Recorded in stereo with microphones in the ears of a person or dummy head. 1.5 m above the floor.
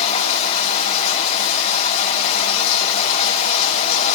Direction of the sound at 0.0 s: 35° left (ahead or behind).